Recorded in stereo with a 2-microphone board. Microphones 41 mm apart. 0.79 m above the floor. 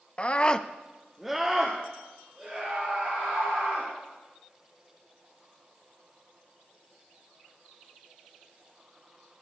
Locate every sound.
0.2 s a scream: 30° left (ahead or behind), 0.7 m; by 3.9 s 15° right (ahead or behind), 4.5 m